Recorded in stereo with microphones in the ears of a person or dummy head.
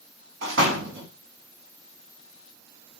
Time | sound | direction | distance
0.4 | a door slam | 75° right (ahead or behind) | 1.1 m